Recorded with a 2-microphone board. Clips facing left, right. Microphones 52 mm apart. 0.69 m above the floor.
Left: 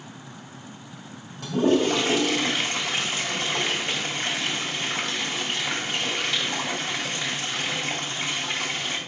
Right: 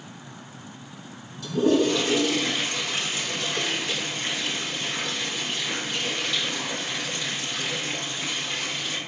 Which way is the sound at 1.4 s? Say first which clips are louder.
Even; 60° left (ahead or behind).